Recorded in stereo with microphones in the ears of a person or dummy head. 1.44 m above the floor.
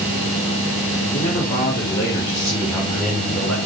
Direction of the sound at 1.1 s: 30° left (ahead or behind).